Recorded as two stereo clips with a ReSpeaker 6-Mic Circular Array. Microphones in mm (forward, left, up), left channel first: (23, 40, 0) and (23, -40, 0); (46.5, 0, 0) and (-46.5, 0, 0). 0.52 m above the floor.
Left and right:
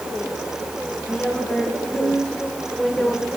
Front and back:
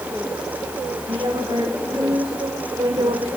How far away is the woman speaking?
About 4.5 m.